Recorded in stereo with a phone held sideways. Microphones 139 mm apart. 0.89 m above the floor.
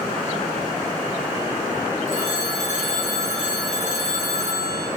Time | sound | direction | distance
2.1 | a phone ringing | 60° left (ahead or behind) | 1.6 m